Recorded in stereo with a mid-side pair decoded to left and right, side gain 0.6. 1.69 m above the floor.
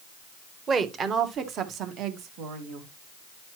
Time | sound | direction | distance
0.7 | a woman speaking | 35° right | 1.6 m